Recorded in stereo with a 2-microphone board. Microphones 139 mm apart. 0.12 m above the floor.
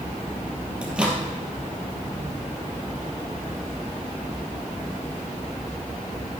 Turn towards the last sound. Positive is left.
turn(degrees=-10)  # may be behind; listen again after turning